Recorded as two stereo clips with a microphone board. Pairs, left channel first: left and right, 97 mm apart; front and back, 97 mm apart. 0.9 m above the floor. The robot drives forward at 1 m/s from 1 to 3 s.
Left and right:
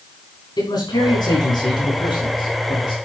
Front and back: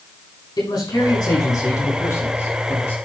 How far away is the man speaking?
About 5 m.